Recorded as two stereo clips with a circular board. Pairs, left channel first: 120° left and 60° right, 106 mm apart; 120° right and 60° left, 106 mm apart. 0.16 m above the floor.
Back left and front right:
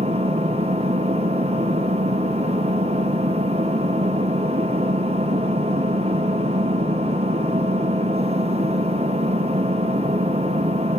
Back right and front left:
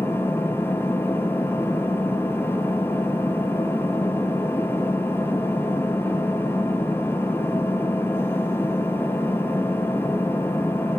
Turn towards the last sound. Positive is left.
turn(degrees=-50)